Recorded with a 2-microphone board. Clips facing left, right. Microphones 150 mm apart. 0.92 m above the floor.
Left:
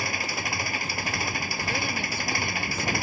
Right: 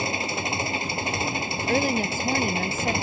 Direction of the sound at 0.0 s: 25° right (ahead or behind).